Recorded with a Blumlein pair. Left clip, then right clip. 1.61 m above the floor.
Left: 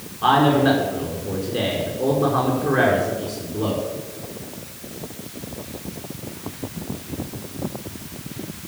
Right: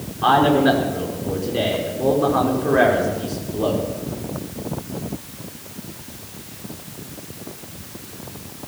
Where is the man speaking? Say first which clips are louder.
Right 1 dB; 5° right, 5 m.